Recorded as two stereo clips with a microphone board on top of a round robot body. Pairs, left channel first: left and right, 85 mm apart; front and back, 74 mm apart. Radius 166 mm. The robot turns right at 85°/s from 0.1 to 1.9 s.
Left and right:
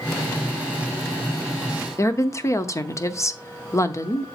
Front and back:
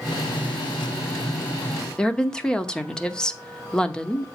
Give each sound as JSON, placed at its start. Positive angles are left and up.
{"t": 2.0, "sound": "a woman speaking", "azimuth_deg": 70, "distance_m": 1.0}